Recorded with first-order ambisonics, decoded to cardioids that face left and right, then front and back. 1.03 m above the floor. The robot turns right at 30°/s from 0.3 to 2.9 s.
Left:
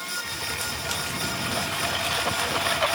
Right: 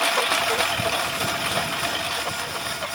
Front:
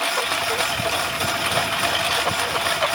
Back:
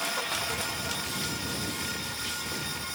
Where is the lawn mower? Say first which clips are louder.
Right 10 dB, front 9 dB; 55° right; by 3.0 s 20° left.